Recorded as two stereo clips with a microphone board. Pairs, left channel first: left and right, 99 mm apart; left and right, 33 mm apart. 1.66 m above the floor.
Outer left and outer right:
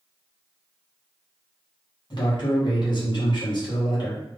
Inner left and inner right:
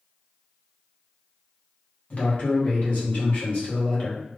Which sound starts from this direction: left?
A man speaking, at 2.1 s.